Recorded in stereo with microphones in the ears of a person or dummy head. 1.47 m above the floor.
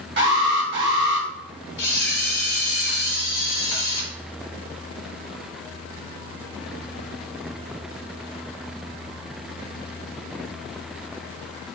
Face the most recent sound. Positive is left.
turn(degrees=70)  # may be behind; listen again after turning